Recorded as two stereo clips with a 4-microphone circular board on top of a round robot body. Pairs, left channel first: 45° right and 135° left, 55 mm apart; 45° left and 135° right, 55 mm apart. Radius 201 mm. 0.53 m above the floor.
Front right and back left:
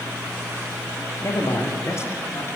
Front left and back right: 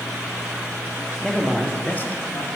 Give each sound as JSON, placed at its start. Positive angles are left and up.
{"t": 1.2, "sound": "a man speaking", "azimuth_deg": -40, "distance_m": 1.7}